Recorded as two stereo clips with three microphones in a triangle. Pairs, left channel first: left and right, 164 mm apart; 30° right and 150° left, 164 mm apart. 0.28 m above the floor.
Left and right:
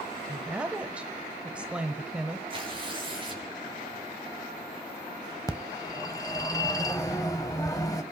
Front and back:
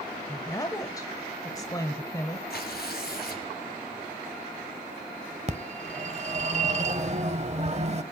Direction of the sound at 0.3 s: 20° right.